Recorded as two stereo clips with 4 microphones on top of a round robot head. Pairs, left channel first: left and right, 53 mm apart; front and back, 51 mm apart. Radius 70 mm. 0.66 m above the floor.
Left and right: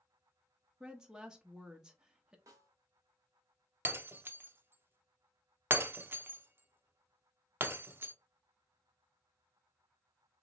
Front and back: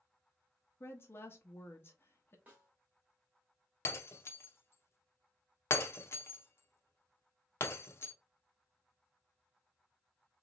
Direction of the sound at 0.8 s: 15° right.